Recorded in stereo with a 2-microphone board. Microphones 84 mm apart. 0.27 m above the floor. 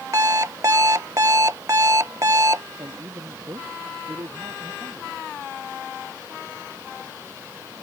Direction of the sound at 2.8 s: 45° right (ahead or behind).